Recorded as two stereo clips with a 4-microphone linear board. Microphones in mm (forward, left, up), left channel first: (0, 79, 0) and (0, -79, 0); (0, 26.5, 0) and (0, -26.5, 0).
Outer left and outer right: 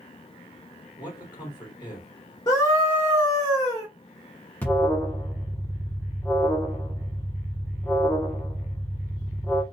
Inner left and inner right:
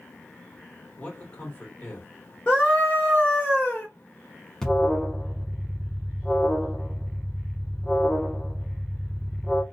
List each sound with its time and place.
1.0 s a man speaking: 30° left (ahead or behind), 1.9 m
2.5 s a scream: 25° left (ahead or behind), 1.6 m
4.6 s an alarm: 10° left (ahead or behind), 0.9 m